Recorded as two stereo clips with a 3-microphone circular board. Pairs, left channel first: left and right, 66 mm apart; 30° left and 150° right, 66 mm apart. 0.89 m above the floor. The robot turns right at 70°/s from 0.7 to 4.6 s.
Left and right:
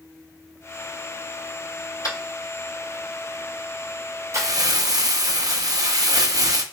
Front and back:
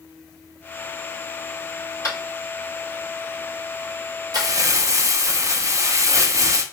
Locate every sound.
2.0 s tapping: 65° left, 3 m; by 4.5 s 125° right, 3 m
4.3 s crumpling: 130° right, 0.6 m; by 6.6 s 110° right, 0.6 m